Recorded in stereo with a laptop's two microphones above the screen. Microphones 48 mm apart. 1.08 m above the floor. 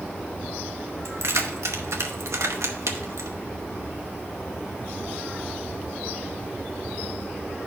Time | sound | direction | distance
1.1 | keys jangling | 75° right (ahead or behind) | 0.8 m